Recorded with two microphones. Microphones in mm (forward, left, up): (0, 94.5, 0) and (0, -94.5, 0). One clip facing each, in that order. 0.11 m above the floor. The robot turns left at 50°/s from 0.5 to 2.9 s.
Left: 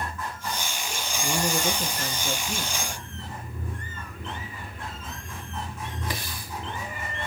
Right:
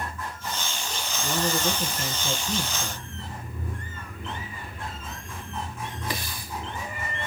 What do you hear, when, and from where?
1.2 s a man speaking: 10° left (ahead or behind), 1.7 m; by 3.1 s 25° right (ahead or behind), 1.7 m